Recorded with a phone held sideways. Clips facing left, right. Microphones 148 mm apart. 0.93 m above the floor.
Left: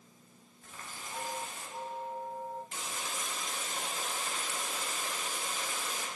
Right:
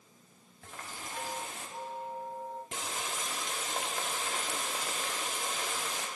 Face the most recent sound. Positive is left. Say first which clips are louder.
# right 3 dB
turn(degrees=-85)